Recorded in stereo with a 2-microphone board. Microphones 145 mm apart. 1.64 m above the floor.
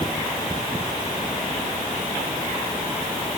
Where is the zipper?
I don't hear a zipper.